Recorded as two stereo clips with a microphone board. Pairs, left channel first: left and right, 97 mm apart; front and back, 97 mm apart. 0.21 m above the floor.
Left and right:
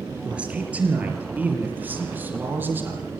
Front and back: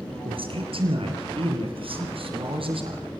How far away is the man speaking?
About 4 m.